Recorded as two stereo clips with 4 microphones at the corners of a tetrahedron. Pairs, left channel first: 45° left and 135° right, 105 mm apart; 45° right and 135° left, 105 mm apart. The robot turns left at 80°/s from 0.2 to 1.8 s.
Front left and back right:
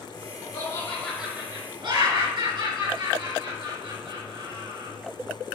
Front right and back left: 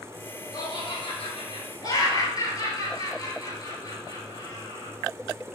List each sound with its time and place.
0.5 s laughter: 5° left, 3.5 m; by 4.9 s 95° right, 3.5 m